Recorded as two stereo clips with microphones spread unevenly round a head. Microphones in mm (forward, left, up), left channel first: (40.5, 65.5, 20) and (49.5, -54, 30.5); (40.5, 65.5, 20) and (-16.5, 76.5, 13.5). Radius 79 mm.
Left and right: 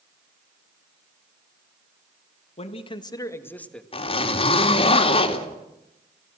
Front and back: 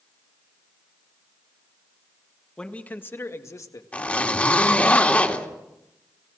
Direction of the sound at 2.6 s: 65° left.